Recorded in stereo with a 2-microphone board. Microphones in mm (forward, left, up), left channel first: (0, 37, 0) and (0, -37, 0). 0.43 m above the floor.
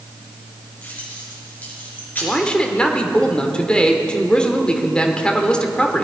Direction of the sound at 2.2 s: 10° left (ahead or behind).